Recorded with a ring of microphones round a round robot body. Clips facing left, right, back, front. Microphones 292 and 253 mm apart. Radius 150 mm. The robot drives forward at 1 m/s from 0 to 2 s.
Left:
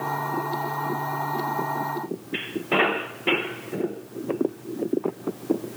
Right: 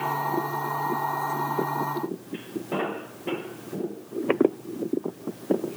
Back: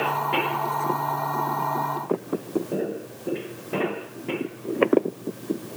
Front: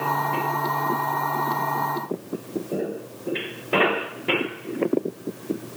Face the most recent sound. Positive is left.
No sound to turn to.